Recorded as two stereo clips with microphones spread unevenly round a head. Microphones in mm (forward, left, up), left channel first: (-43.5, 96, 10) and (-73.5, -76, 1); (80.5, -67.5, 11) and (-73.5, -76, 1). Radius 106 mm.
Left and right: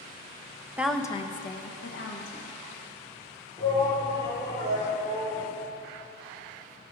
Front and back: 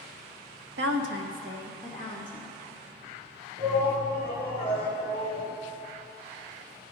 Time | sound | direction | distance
0.8 | a woman speaking | straight behind | 0.8 m
3.6 | a shout | 150° left | 3.5 m